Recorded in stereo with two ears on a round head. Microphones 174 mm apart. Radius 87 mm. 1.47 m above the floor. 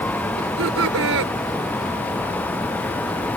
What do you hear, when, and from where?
0.4 s laughter: 75° right (ahead or behind)